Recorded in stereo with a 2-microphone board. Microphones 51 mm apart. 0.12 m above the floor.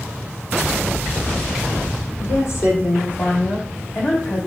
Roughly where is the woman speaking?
Left.